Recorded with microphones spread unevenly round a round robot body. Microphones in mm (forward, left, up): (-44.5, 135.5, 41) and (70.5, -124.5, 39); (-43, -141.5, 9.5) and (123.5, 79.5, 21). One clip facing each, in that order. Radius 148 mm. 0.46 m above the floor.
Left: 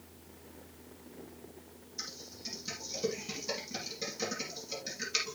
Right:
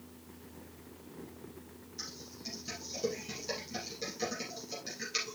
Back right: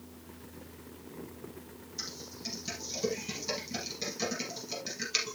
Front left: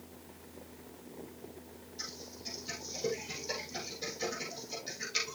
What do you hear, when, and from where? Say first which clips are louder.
2.0 s typing on a keyboard: right 1 dB, back right 3 dB; 165° right, 4 m